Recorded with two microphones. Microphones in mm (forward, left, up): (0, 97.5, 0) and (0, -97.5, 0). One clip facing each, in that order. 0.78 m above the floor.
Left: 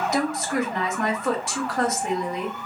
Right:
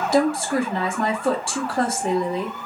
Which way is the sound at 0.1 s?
30° right (ahead or behind).